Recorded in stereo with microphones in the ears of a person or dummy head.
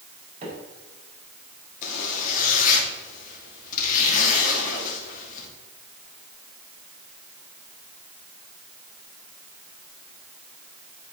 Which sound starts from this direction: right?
A microwave, at 0.4 s.